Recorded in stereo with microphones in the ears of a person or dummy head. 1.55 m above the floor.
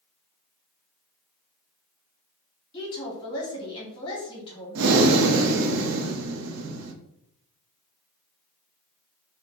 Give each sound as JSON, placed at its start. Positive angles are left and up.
{"t": 2.7, "sound": "a woman speaking", "side_deg": 30, "distance_m": 1.7}
{"t": 4.8, "sound": "breathing", "side_deg": -85, "distance_m": 0.6}